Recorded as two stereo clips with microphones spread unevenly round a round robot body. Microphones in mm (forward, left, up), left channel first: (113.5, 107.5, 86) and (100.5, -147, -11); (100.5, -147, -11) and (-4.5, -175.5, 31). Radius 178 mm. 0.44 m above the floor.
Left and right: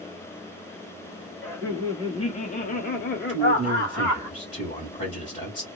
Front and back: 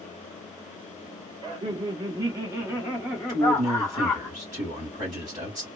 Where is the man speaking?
160° left, 1.4 m.